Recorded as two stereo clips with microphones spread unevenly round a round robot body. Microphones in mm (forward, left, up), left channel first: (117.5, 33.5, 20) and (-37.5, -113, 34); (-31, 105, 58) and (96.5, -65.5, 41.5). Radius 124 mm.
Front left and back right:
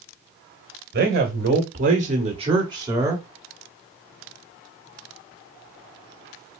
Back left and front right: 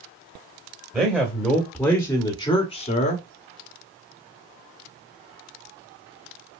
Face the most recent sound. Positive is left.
turn(degrees=145)